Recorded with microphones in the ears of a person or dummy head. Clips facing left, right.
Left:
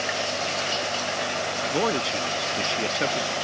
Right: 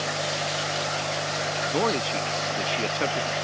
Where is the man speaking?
5° left (ahead or behind).